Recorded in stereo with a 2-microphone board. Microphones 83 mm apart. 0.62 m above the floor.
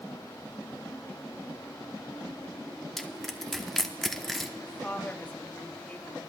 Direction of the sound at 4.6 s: 20° left (ahead or behind).